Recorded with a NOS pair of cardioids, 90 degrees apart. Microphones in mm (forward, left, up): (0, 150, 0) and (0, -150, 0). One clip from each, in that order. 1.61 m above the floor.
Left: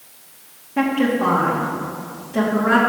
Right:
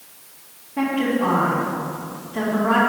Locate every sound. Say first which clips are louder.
0.8 s a woman speaking: left 2 dB; 50° left, 2.5 m